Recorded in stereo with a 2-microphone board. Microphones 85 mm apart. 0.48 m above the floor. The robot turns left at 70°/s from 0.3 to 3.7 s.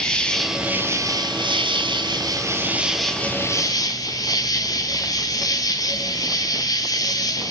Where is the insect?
10° left, 1.5 m; by 7.5 s 130° left, 1.5 m.